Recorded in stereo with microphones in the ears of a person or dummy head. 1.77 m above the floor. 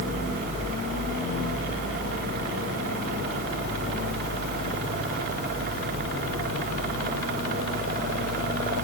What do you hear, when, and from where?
Only background noise.